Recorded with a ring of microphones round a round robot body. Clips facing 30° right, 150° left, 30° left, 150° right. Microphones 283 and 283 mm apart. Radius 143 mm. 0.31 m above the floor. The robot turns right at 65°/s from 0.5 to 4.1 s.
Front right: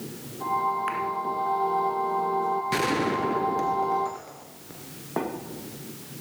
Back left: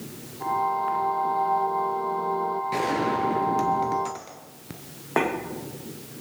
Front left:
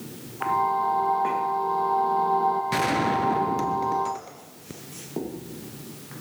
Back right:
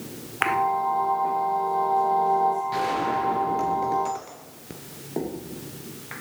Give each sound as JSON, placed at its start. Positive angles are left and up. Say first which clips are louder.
{"t": 2.7, "sound": "a gunshot", "louder": "even, front left 2 dB", "azimuth_deg": 25, "distance_m": 3.0}